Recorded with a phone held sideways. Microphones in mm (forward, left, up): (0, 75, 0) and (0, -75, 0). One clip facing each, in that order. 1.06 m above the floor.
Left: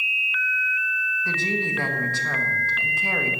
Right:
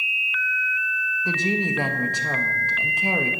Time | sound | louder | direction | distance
1.2 | a woman speaking | right 4 dB | 20° right (ahead or behind) | 1.3 m